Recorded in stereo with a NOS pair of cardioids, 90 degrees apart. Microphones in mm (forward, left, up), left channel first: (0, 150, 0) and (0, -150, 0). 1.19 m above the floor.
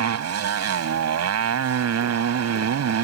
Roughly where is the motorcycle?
Ahead right.